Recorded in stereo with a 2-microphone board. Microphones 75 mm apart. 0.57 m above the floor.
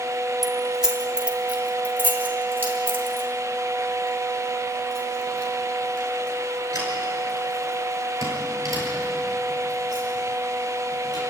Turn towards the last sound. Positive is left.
turn(degrees=-50)  # may be behind; listen again after turning